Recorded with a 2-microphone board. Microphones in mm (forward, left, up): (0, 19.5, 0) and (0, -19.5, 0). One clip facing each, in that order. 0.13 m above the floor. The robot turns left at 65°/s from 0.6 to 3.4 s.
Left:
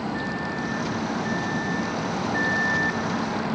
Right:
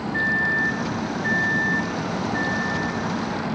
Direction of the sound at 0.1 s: 70° right.